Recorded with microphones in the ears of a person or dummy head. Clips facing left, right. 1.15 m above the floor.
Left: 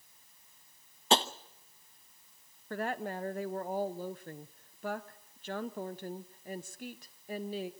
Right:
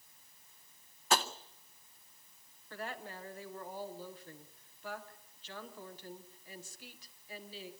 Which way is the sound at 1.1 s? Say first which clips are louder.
Left 4 dB; 25° left (ahead or behind).